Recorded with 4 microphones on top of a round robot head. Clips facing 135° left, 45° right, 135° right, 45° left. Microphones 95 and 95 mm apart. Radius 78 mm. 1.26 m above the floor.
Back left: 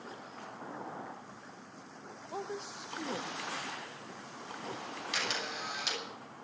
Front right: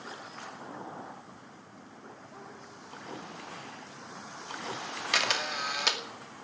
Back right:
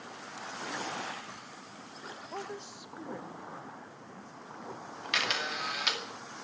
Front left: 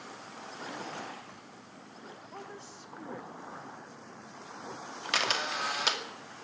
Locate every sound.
2.3 s a woman speaking: 170° left, 1.2 m; by 4.6 s 120° left, 4 m
5.1 s a camera shutter: 10° right, 2.5 m